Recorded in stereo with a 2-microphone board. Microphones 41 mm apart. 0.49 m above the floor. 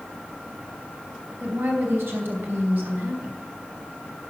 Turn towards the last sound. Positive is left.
turn(degrees=-65)  # may be behind; listen again after turning